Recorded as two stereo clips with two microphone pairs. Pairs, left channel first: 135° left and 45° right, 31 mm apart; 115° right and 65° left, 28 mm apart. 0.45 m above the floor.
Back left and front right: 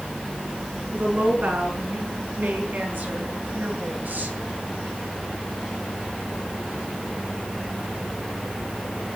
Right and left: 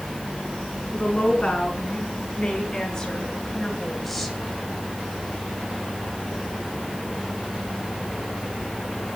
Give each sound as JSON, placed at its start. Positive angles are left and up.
{"t": 0.9, "sound": "a woman speaking", "azimuth_deg": -65, "distance_m": 5.5}